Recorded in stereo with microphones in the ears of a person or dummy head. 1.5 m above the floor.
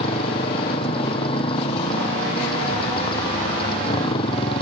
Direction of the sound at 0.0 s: 30° left (ahead or behind).